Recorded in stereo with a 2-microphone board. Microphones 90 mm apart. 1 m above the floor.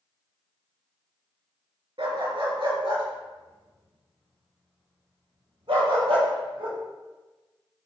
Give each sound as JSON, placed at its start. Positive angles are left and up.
{"t": 2.0, "sound": "a dog barking", "side_deg": -65, "distance_m": 3.5}